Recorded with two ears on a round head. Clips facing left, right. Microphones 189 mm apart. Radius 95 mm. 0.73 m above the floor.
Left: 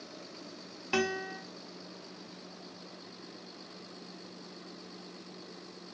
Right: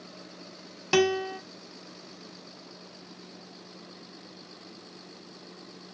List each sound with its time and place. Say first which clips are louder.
0.9 s a guitar: right 9 dB; 55° right (ahead or behind), 0.5 m